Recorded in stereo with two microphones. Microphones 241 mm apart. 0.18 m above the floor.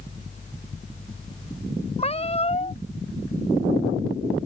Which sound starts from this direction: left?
A cat meowing, at 2.0 s.